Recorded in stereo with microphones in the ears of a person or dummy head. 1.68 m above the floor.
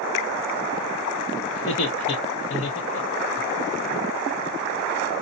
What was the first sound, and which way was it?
Laughter, 50° left (ahead or behind).